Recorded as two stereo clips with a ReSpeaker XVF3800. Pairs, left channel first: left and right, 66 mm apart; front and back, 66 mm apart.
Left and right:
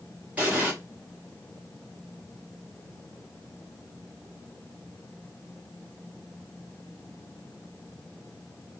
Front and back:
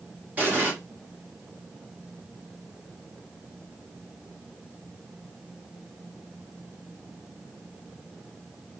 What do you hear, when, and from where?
0.4 s an explosion: 140° right, 1.4 m